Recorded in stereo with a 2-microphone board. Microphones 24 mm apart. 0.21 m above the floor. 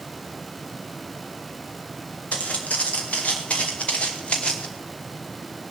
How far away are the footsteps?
About 3.5 m.